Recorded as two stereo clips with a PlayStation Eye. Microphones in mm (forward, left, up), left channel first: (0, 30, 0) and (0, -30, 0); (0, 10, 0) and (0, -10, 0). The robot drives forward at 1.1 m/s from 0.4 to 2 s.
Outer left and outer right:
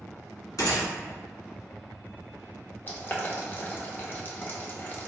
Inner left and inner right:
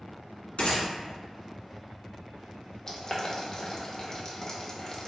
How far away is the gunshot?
About 1.8 m.